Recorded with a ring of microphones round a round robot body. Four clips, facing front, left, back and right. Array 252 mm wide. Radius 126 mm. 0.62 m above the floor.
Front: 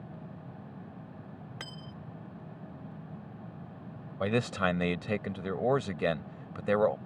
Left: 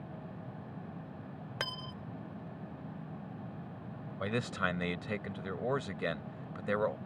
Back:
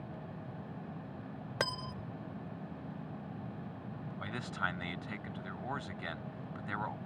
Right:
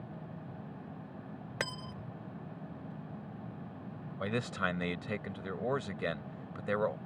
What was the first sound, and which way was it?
Cutlery clinking, 160° right.